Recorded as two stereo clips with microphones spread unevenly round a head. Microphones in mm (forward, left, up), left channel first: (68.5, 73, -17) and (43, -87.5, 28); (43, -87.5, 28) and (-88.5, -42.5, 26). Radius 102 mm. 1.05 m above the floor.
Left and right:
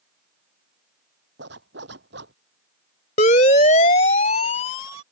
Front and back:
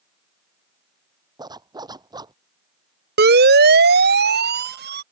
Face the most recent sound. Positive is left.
turn(degrees=145)